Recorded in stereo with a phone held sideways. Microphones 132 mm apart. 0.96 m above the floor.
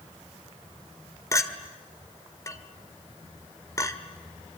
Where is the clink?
25° left (ahead or behind), 1.6 m.